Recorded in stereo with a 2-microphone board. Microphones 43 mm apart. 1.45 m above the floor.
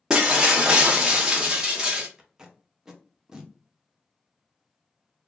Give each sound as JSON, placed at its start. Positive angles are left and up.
{"t": 0.1, "sound": "breaking glass", "side_deg": -20, "distance_m": 0.6}
{"t": 2.2, "sound": "tape being pulled", "side_deg": -10, "distance_m": 0.6}